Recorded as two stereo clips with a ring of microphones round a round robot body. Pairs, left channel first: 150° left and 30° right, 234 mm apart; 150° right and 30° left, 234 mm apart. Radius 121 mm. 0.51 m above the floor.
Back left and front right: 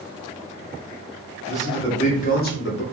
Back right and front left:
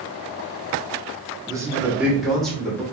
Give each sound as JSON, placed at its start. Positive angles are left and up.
{"t": 1.5, "sound": "a man speaking", "azimuth_deg": 85, "distance_m": 0.8}